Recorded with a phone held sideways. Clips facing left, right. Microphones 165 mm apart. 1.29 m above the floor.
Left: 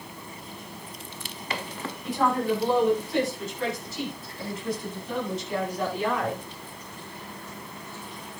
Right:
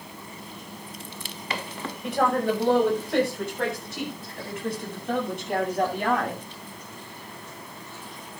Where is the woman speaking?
80° right, 6.5 m; by 6.4 s 65° right (ahead or behind), 9 m.